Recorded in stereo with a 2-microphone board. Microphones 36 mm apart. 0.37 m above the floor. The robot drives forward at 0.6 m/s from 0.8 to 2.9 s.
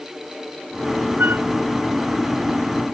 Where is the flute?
75° right (ahead or behind).